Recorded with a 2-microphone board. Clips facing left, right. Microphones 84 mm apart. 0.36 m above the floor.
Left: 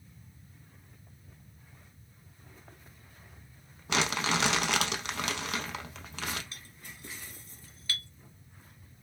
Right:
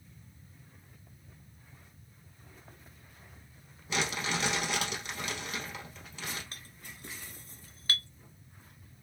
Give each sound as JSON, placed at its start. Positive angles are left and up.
{"t": 3.9, "sound": "crumpling", "side_deg": 80, "distance_m": 0.6}
{"t": 6.5, "sound": "a clink", "side_deg": -40, "distance_m": 0.7}